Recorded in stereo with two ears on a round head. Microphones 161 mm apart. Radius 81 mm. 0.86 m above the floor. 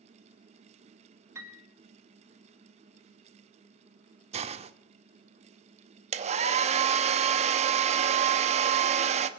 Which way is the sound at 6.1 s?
40° right (ahead or behind).